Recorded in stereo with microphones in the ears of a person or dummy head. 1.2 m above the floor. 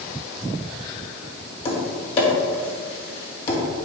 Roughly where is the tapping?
Left.